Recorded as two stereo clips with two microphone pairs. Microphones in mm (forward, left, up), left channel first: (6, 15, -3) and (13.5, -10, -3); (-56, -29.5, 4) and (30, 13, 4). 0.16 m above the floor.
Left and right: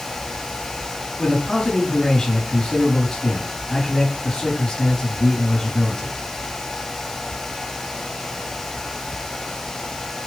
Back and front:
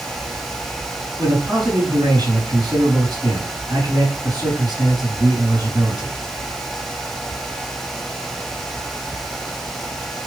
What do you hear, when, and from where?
1.2 s a man speaking: 50° left, 2.5 m